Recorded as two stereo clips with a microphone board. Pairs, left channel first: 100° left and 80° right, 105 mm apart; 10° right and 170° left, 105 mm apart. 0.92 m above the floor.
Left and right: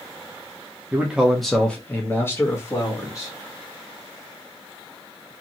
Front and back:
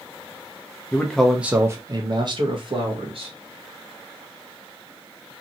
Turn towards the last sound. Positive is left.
turn(degrees=155)